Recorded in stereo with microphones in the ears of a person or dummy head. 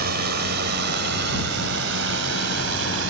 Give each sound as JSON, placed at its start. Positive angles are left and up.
{"t": 0.0, "sound": "a drone", "side_deg": -55}